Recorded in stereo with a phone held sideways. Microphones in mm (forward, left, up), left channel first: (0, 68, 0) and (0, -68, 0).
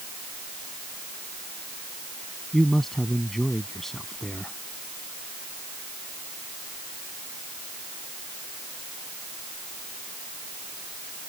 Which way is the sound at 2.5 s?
Centre (ahead or behind).